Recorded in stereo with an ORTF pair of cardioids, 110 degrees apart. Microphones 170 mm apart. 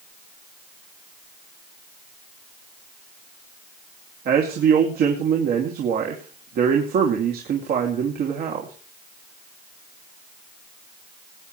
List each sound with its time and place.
4.2 s a man speaking: 65° right, 3 m